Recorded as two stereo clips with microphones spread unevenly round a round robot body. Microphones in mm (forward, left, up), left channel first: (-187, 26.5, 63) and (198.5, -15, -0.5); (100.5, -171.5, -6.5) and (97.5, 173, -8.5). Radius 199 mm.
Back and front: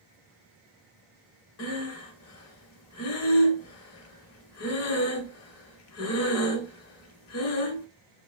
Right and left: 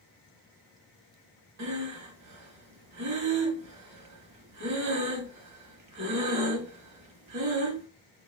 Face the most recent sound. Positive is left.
turn(degrees=125)